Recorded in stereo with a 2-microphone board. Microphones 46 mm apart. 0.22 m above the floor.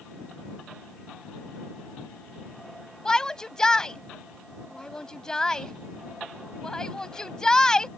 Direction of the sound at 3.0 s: 15° left (ahead or behind).